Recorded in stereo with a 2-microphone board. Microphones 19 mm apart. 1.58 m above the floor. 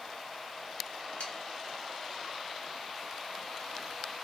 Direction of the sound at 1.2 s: 70° left (ahead or behind).